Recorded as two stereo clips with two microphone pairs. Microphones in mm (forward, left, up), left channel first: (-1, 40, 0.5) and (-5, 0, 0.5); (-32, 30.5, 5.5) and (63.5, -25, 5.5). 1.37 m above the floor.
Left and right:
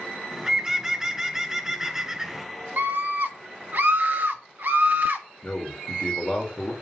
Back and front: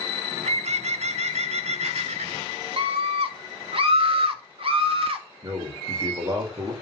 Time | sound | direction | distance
0.3 | a bird | 15° right | 1.0 m
2.8 | a scream | 60° right | 2.5 m
5.4 | a man speaking | 25° left | 3.5 m